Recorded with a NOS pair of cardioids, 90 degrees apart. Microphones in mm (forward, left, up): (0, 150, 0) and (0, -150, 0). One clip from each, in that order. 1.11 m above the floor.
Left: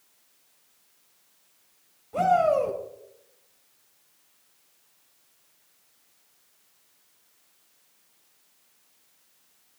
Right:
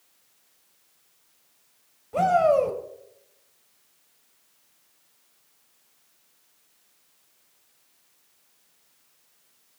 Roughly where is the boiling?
I don't hear boiling.